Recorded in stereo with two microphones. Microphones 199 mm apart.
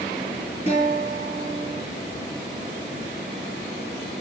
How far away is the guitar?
About 7 m.